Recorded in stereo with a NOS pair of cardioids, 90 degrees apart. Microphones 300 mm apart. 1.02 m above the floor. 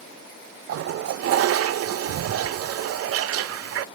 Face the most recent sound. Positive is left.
turn(degrees=-55)